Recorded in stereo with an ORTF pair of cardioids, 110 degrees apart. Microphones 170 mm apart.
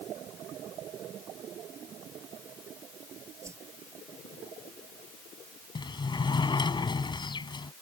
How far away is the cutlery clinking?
I don't hear cutlery clinking.